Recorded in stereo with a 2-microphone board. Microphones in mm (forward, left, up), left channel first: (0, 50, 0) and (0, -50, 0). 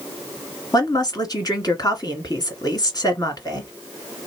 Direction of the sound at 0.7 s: 40° left (ahead or behind).